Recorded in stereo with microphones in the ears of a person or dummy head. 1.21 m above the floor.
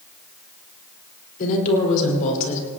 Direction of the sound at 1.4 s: 45° left (ahead or behind).